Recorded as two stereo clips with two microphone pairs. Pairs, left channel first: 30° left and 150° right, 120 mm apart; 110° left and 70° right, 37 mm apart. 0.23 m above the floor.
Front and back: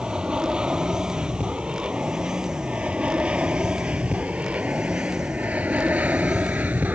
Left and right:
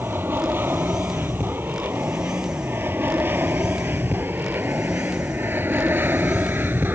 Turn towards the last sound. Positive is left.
turn(degrees=-75)